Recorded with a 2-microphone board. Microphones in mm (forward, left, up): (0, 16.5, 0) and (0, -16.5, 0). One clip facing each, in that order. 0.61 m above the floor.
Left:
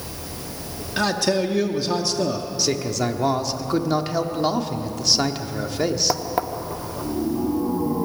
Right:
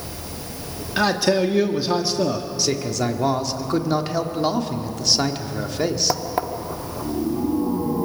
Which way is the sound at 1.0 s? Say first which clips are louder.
Right 2 dB; 10° right (ahead or behind).